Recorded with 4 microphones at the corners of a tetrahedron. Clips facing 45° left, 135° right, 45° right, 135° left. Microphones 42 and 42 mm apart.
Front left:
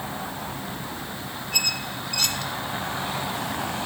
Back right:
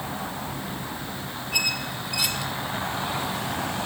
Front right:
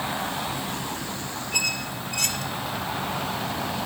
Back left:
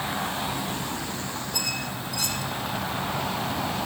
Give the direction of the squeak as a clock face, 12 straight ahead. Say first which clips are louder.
Back right 1 dB, front right 6 dB; 2 o'clock.